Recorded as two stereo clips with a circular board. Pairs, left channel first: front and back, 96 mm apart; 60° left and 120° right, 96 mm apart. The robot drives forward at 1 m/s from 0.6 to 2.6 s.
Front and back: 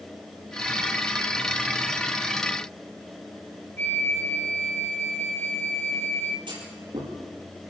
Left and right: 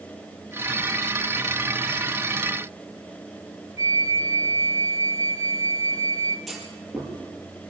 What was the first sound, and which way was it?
A flute, 65° right.